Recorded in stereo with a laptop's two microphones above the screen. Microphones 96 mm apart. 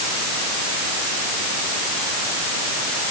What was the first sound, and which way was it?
Only background noise.